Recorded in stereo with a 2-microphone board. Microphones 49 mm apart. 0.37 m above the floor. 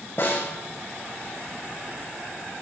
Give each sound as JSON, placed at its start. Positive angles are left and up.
{"t": 0.2, "sound": "a snare drum", "side_deg": 55, "distance_m": 6.0}